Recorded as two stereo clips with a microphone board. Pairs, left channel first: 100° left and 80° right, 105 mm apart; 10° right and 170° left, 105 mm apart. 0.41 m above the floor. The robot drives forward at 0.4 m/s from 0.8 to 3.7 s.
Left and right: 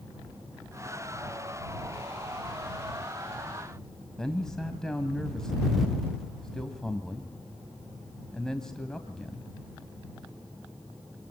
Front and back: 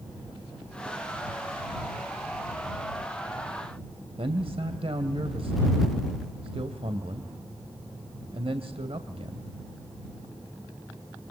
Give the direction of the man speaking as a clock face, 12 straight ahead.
6 o'clock.